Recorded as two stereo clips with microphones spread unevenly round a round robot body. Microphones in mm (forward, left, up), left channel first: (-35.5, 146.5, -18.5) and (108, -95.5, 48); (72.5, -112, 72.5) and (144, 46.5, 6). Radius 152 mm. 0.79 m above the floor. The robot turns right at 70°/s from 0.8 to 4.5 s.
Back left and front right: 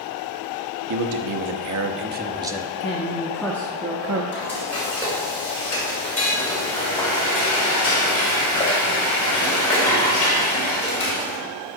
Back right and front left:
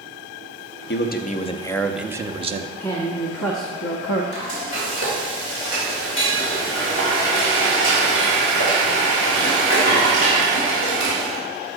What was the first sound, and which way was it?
A man speaking, 85° right.